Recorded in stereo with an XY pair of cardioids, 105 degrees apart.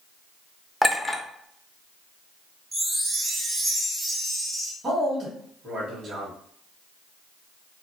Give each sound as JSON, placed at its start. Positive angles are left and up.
{"t": 0.8, "sound": "a clink", "azimuth_deg": 0, "distance_m": 0.6}
{"t": 2.7, "sound": "a chime", "azimuth_deg": -30, "distance_m": 0.9}
{"t": 4.8, "sound": "a man speaking", "azimuth_deg": -45, "distance_m": 1.1}